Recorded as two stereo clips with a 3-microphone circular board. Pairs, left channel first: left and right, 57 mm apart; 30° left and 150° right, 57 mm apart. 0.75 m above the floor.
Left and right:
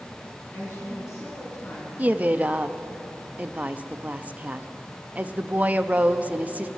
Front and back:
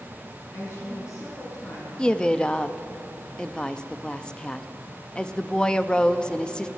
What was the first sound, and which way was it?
A woman speaking, 55° left.